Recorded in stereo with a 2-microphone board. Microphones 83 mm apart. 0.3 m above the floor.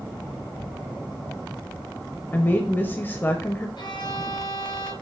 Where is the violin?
70° left (ahead or behind), 2.5 m.